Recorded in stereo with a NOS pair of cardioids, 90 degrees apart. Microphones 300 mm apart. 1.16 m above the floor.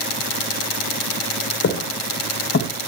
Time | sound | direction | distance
1.6 | footsteps | 55° left | 3.5 m